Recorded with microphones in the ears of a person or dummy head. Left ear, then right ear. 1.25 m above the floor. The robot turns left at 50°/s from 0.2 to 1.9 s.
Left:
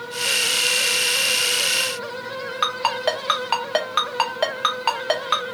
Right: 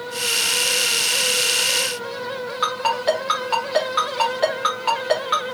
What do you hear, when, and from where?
2.6 s a ringtone: 20° left (ahead or behind), 0.7 m